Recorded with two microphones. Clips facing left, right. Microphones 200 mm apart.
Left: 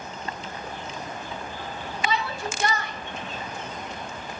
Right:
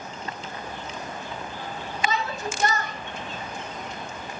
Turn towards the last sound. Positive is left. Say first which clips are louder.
# even
turn(degrees=-45)  # may be behind; listen again after turning